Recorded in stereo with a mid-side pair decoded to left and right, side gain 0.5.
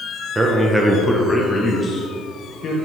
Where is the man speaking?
20° right, 1.4 m; by 2.8 s 45° left, 2.5 m.